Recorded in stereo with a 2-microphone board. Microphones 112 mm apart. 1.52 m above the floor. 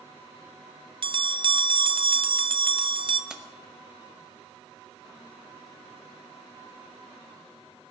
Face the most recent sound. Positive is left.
turn(degrees=-10)  # may be behind; listen again after turning